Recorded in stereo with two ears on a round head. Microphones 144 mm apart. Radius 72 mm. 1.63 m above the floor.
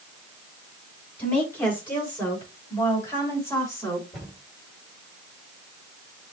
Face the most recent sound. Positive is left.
turn(degrees=5)  # may be behind; listen again after turning